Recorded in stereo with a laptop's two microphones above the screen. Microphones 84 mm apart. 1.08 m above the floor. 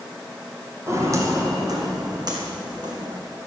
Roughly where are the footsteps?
Right.